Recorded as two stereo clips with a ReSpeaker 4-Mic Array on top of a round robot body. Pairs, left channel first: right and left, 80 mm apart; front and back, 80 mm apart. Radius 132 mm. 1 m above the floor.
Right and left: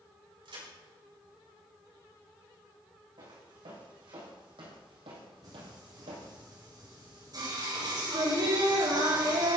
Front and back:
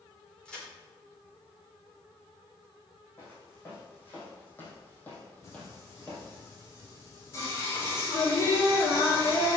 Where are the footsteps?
65° left, 4 m; by 6.3 s 85° left, 1.6 m.